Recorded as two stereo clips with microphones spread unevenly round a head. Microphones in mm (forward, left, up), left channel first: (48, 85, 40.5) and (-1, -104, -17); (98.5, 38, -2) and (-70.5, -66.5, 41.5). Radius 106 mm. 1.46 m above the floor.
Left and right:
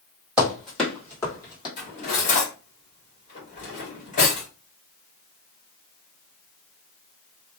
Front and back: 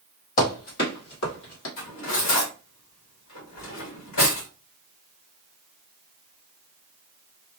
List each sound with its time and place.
0.4 s running footsteps: 5° right, 1.7 m; by 1.7 s 40° left, 1.9 m
1.8 s cutlery clinking: 30° left, 1.5 m